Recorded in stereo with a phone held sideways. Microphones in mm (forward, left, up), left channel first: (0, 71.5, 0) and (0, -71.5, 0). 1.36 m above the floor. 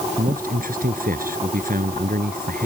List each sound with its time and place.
0.2 s a man speaking: 75° right (ahead or behind)